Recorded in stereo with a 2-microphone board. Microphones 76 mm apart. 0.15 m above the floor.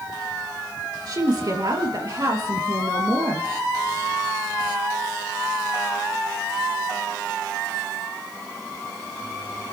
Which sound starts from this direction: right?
A woman speaking, at 1.1 s.